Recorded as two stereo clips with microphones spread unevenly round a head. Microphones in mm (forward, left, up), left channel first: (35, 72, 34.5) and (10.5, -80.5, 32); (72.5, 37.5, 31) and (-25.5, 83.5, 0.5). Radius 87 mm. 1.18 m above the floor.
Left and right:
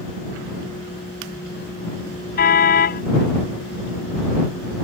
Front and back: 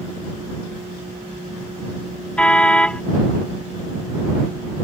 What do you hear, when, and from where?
2.4 s a car horn: 50° left